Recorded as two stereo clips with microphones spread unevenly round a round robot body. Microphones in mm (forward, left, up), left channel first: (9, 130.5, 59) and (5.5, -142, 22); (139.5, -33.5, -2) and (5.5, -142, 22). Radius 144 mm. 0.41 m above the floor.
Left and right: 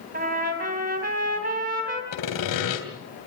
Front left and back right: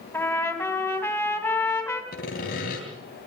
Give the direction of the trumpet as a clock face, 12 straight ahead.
1 o'clock.